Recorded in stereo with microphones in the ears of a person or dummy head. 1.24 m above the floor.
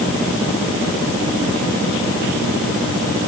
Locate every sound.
Only background noise.